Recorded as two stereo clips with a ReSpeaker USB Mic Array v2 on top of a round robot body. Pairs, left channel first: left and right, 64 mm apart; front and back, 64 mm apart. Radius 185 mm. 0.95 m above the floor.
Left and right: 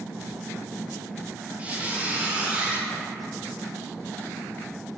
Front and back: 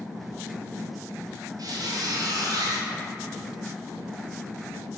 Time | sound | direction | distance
1.6 | a squeak | 160° right | 0.6 m